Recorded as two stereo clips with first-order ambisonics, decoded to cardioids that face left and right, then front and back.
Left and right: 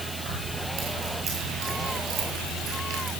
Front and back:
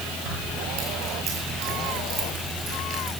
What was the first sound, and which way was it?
Keys jangling, 150° right.